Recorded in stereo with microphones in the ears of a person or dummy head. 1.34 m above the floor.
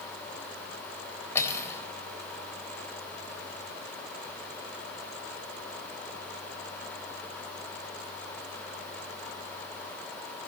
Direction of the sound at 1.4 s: 15° left (ahead or behind).